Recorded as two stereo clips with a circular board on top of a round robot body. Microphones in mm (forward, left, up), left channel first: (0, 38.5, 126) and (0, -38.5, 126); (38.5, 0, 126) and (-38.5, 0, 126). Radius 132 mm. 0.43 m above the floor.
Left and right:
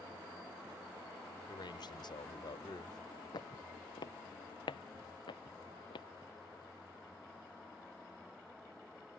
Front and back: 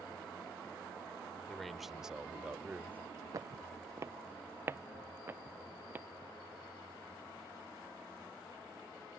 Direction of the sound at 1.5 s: 85° left.